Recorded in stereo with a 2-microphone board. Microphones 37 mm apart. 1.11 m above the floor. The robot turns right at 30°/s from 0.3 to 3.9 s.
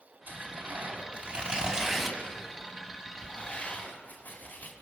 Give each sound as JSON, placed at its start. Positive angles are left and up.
{"t": 0.3, "sound": "tearing paper", "side_deg": -60, "distance_m": 5.0}